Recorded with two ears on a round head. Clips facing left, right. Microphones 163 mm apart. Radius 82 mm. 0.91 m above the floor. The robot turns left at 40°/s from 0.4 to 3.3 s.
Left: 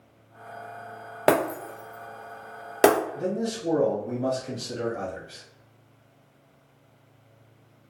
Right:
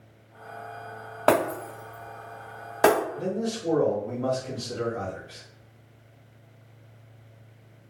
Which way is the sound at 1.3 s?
20° left (ahead or behind).